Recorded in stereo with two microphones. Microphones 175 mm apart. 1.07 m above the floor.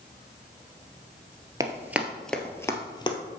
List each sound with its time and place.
1.6 s running footsteps: 20° right (ahead or behind), 1.2 m; by 3.2 s 30° left (ahead or behind), 1.5 m